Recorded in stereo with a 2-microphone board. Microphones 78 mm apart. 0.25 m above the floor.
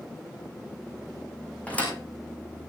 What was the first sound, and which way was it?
A thud, 20° left (ahead or behind).